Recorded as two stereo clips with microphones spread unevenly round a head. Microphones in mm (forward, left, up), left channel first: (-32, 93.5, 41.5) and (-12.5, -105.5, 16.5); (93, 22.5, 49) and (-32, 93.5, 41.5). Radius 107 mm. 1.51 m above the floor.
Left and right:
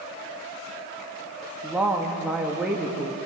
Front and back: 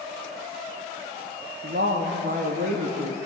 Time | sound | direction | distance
1.6 | a woman speaking | 170° right | 2 m